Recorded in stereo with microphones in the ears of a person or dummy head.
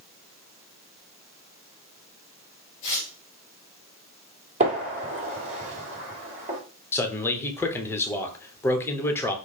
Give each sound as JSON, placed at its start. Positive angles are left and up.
{"t": 2.8, "sound": "tearing paper", "side_deg": 55, "distance_m": 1.9}
{"t": 4.6, "sound": "a gunshot", "side_deg": -35, "distance_m": 3.0}
{"t": 6.9, "sound": "a man speaking", "side_deg": 15, "distance_m": 1.0}